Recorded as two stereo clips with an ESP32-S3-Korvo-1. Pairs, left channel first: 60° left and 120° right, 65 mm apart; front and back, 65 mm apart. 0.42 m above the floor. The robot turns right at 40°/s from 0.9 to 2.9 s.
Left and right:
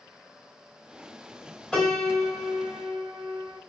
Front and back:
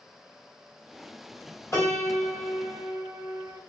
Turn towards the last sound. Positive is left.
turn(degrees=35)